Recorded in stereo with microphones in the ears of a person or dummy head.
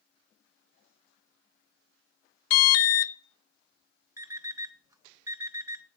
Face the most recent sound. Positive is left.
turn(degrees=-20)  # may be behind; listen again after turning